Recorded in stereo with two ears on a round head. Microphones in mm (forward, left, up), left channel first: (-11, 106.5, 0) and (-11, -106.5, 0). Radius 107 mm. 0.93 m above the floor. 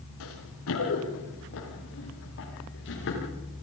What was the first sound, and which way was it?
Running footsteps, 70° left (ahead or behind).